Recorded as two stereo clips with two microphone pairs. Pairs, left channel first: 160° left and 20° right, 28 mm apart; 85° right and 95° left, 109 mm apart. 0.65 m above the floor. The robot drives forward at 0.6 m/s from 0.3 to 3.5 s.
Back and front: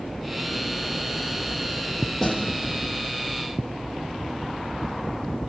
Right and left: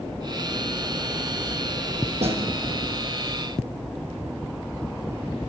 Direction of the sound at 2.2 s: 80° left.